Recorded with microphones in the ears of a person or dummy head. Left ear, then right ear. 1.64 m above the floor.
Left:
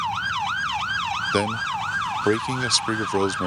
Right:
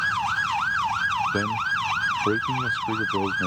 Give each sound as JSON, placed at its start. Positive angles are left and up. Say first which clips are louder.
{"t": 1.3, "sound": "a man speaking", "louder": "left 1 dB", "side_deg": 75}